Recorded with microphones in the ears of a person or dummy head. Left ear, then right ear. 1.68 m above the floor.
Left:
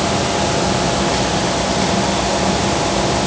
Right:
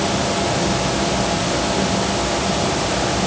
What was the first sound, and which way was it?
Only background noise.